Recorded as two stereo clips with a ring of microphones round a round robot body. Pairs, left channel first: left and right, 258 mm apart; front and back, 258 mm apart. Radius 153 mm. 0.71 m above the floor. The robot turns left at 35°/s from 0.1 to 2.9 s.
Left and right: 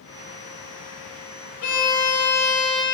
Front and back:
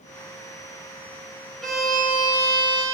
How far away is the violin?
About 3 m.